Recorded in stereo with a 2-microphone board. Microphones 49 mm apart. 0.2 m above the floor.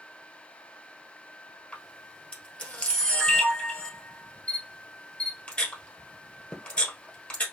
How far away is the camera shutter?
About 1.6 m.